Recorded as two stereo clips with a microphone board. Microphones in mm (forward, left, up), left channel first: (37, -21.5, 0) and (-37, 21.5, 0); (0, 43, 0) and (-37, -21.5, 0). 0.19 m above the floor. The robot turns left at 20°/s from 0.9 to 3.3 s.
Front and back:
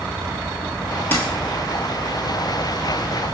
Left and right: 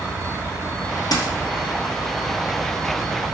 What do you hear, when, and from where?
1.1 s a dropped coin: 35° left, 1.0 m; by 1.3 s 30° left, 1.0 m